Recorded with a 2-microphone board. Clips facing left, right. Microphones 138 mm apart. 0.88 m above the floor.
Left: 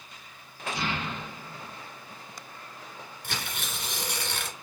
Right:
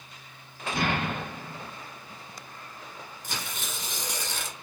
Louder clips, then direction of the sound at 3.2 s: Left 1 dB; 60° left (ahead or behind).